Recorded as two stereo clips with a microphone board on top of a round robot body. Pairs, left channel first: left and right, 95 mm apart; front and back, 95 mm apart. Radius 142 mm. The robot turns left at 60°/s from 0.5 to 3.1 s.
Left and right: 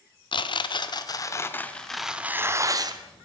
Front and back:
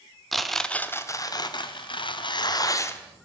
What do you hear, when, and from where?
0.3 s tearing paper: 90° left, 0.8 m; by 3.0 s 65° right, 0.8 m